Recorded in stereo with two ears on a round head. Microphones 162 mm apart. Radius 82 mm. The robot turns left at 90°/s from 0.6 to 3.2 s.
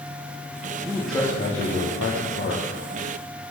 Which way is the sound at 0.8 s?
160° right.